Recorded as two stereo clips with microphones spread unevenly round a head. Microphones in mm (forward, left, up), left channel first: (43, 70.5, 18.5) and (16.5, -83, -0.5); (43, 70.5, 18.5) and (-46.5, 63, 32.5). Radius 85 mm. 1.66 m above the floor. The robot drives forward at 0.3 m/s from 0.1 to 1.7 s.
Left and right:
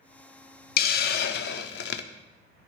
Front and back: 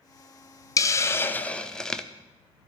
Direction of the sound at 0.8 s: 60° left.